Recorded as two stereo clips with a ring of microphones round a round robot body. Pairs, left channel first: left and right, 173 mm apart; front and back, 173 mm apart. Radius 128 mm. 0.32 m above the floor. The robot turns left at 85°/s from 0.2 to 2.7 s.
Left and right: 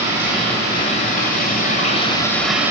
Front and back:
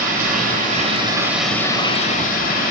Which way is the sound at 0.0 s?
165° right.